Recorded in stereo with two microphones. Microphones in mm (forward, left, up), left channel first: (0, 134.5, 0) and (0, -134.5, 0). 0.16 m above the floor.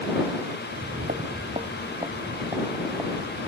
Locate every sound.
0.7 s footsteps: 50° right (ahead or behind); by 3.5 s 5° right (ahead or behind)